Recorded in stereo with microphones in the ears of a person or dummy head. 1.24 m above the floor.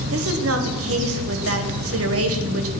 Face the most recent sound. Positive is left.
turn(degrees=-70)  # may be behind; listen again after turning